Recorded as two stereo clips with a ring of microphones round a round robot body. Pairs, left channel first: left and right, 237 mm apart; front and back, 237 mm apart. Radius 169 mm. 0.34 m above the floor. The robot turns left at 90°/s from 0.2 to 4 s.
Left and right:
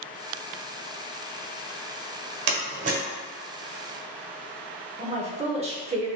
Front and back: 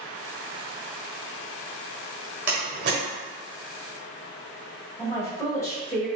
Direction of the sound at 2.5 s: 100° right.